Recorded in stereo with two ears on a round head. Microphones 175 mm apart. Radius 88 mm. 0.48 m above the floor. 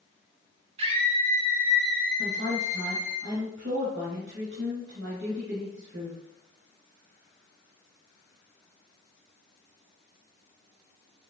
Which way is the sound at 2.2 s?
70° right (ahead or behind).